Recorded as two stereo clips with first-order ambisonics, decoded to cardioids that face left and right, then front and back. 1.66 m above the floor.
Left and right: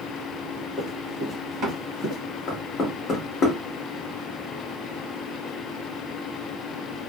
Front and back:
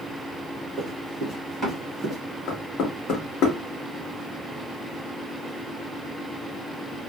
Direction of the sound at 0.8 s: 135° right.